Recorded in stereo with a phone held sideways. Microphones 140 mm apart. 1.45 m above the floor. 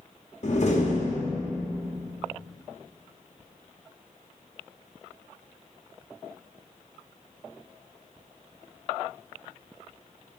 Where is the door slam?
55° left (ahead or behind), 1.7 m.